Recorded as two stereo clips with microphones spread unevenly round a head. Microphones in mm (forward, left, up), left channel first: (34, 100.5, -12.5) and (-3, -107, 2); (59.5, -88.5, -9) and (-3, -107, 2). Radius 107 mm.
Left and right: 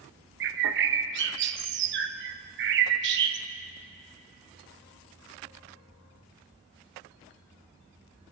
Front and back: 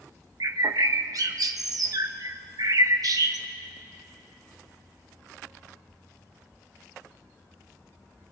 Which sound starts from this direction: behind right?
A bird, at 0.4 s.